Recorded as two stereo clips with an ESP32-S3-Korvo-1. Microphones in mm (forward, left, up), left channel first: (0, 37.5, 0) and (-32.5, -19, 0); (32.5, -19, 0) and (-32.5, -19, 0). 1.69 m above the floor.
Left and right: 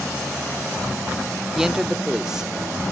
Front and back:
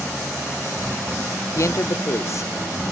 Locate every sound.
1.6 s a man speaking: 40° right, 0.6 m